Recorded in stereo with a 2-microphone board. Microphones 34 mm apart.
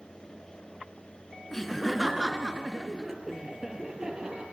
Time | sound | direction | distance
1.5 | laughter | 10° left (ahead or behind) | 1.2 m